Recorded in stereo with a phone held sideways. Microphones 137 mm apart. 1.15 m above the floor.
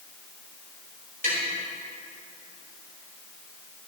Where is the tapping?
80° right, 3 m.